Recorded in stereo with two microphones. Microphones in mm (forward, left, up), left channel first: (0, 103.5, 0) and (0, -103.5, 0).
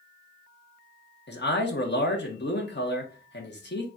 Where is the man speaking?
65° left (ahead or behind), 1.2 m.